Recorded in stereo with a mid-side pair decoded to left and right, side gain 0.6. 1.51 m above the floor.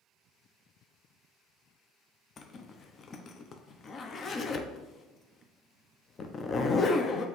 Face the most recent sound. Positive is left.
turn(degrees=35)